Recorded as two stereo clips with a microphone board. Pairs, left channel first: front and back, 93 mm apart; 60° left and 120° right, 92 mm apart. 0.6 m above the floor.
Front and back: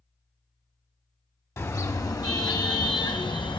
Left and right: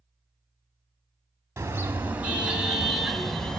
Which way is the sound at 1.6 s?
60° right.